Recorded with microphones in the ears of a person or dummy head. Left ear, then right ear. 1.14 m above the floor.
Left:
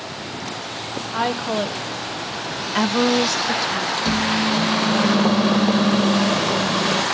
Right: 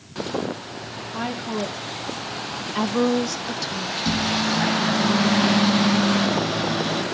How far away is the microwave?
About 2 m.